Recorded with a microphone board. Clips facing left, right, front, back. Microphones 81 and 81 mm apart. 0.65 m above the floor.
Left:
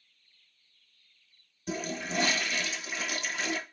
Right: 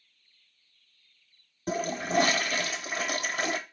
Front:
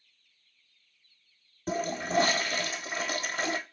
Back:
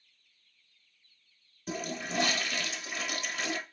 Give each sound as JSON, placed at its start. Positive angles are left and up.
{"t": 1.7, "sound": "a toilet flushing", "azimuth_deg": -50, "distance_m": 0.7}